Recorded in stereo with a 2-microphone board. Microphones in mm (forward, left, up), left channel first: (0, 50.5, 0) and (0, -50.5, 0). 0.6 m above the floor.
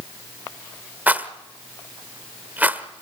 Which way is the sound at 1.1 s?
15° right (ahead or behind).